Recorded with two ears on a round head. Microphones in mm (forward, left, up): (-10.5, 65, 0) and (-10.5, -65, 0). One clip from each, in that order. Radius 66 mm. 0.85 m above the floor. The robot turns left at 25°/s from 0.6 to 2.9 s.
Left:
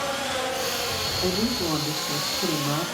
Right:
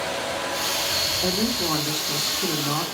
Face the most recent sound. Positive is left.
turn(degrees=-155)